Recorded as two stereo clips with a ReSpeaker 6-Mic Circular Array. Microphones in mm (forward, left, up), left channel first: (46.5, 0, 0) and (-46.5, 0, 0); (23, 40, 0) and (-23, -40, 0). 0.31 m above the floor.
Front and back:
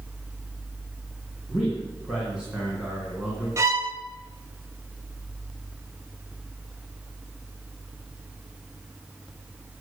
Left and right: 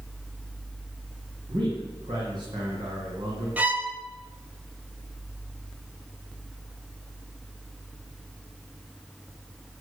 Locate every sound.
1.5 s a man speaking: 100° right, 3.5 m
3.6 s a violin: straight behind, 1.8 m